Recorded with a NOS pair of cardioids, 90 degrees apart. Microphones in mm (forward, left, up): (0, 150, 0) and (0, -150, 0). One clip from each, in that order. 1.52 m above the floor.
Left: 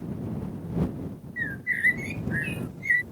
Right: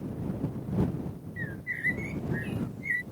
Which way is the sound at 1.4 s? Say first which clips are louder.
Left 8 dB; 50° left.